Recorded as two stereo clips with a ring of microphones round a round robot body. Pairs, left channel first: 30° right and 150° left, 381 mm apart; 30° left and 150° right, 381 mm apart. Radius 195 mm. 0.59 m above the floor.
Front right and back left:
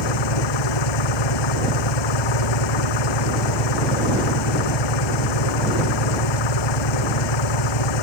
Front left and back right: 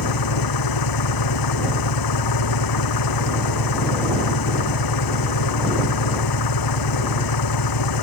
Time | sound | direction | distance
0.0 | an engine running | 5° right | ?